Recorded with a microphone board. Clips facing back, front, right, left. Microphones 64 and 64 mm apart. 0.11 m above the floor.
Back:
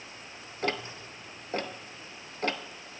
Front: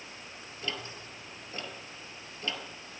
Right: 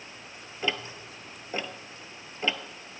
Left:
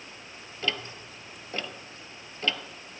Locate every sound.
0.6 s ticking: 160° right, 0.7 m